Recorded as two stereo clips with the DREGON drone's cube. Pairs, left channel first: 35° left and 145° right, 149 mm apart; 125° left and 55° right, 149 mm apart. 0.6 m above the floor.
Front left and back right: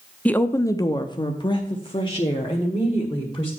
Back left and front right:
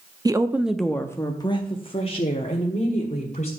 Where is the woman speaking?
35° right, 0.7 m; by 3.5 s 90° left, 2 m.